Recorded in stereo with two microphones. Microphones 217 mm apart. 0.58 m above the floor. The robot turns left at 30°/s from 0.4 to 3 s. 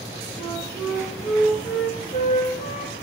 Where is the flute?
155° right, 1.6 m; by 3.0 s 130° left, 1.6 m.